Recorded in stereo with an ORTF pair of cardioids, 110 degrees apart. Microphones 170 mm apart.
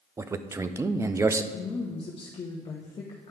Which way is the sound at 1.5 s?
30° left.